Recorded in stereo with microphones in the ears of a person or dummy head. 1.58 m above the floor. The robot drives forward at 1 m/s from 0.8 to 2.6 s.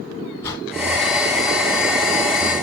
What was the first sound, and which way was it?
A whoosh, 10° left (ahead or behind).